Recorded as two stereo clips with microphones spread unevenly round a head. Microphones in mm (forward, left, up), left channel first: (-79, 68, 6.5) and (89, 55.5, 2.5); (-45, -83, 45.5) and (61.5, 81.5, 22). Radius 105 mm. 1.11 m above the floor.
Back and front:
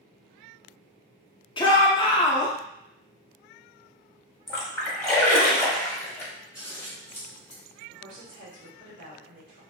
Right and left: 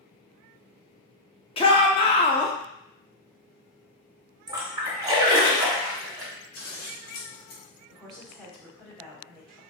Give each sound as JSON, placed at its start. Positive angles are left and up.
{"t": 1.6, "sound": "a shout", "azimuth_deg": -165, "distance_m": 0.5}
{"t": 4.5, "sound": "a splash", "azimuth_deg": 105, "distance_m": 0.8}
{"t": 6.5, "sound": "scissors", "azimuth_deg": -90, "distance_m": 0.8}
{"t": 7.9, "sound": "a woman speaking", "azimuth_deg": -35, "distance_m": 1.1}